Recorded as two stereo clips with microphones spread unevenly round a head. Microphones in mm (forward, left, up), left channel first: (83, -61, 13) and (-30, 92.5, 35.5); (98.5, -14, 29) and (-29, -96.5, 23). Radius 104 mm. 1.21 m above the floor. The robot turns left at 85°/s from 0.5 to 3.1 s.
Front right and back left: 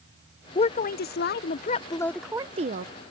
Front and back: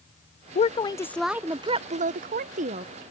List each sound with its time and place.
0.6 s a woman speaking: straight ahead; by 2.9 s 160° left